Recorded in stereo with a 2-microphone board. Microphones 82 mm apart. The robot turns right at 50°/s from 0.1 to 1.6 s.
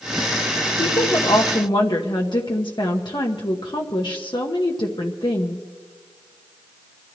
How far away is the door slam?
No door slam in this recording.